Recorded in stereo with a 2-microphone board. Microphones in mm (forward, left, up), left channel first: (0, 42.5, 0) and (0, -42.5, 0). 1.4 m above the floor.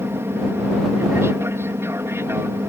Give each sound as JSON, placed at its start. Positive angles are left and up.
{"t": 0.0, "sound": "an aircraft", "side_deg": -30}